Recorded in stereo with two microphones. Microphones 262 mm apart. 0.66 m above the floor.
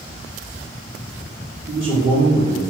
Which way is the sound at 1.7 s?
50° right (ahead or behind).